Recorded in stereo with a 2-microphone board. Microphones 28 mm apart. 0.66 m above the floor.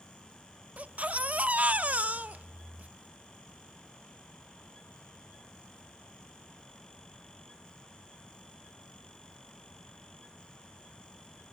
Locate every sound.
0.8 s a baby crying: 55° right (ahead or behind), 0.5 m